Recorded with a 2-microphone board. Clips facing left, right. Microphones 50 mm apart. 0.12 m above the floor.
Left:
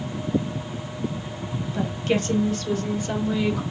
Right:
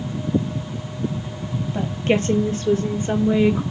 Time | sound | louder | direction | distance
1.7 | a woman speaking | right 3 dB | 35° right (ahead or behind) | 3 m